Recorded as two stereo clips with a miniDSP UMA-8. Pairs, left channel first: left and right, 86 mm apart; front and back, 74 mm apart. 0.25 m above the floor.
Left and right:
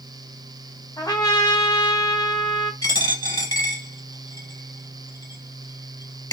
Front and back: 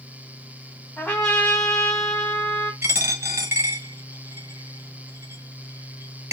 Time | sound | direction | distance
1.0 | a trumpet | 75° left | 1.2 m
2.8 | a dropped coin | 125° left | 1.2 m